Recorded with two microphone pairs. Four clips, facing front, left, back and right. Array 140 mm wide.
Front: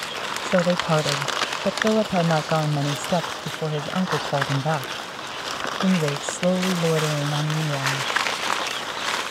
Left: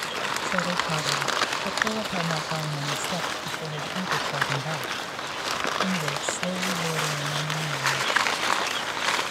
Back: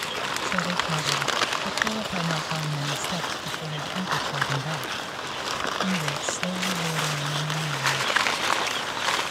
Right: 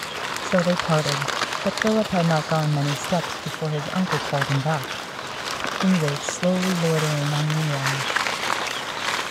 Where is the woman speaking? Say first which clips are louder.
Right 9 dB, front 9 dB; 35° right.